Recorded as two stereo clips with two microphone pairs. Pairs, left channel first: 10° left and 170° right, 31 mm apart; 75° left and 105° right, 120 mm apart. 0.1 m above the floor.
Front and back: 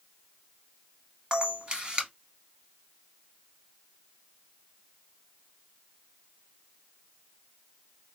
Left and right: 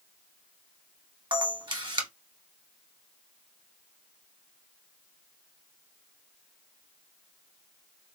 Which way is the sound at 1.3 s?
130° right.